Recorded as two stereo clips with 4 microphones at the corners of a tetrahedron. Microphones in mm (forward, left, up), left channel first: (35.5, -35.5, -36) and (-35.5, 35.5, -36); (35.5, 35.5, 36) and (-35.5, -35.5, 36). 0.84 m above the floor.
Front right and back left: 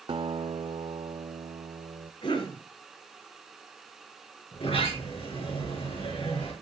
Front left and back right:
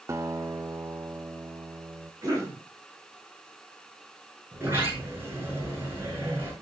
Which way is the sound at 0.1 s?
165° left.